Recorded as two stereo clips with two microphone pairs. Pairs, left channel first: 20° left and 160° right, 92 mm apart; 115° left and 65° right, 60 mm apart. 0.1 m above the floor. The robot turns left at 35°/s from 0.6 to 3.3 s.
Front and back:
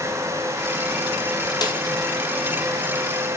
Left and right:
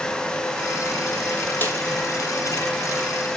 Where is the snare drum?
60° left, 1.8 m; by 1.8 s 55° left, 1.8 m.